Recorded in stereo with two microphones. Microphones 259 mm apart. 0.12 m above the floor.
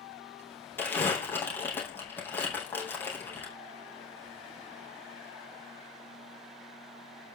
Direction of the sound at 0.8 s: 5° left (ahead or behind).